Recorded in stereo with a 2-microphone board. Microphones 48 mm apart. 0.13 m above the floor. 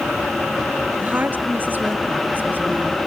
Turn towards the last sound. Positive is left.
turn(degrees=-40)  # may be behind; listen again after turning